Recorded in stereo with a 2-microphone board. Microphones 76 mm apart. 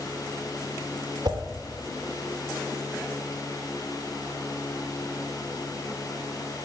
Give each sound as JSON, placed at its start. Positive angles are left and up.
{"t": 1.2, "sound": "a whoosh", "side_deg": -65, "distance_m": 1.7}